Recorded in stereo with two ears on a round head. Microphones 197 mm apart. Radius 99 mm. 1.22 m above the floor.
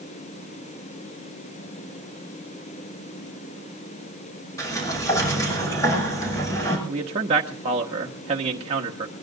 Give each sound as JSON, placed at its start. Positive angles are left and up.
{"t": 4.6, "sound": "a sliding door", "side_deg": 15, "distance_m": 6.5}
{"t": 6.9, "sound": "a man speaking", "side_deg": -30, "distance_m": 1.4}